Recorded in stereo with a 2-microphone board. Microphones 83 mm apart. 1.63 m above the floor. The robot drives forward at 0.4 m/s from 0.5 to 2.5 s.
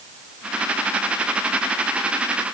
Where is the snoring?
No snoring in this recording.